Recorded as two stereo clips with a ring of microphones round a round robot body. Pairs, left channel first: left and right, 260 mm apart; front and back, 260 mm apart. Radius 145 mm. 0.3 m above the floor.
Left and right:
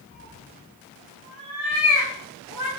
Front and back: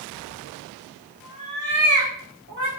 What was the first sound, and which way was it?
A cat meowing, 165° left.